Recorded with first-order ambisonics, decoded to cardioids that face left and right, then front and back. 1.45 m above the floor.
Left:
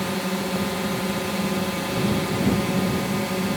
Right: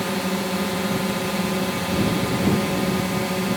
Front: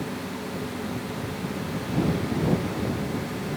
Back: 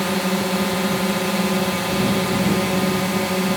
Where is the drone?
175° right.